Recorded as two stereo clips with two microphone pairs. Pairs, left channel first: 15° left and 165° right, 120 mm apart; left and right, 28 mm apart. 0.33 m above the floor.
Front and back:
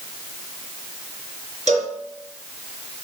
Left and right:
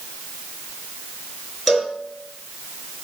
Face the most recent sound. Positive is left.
turn(degrees=-175)